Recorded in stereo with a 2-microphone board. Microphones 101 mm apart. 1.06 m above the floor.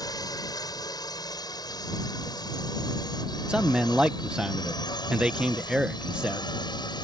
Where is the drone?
40° left (ahead or behind); by 7.0 s 45° left (ahead or behind).